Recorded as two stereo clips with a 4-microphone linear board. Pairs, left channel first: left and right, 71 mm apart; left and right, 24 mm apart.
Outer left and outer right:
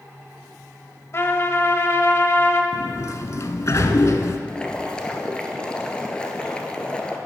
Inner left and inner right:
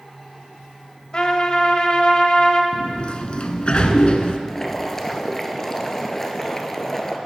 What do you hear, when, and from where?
1.1 s a trumpet: 40° left (ahead or behind), 0.9 m
2.7 s a sliding door: 50° left (ahead or behind), 0.7 m
4.5 s boiling: 15° left (ahead or behind), 1.0 m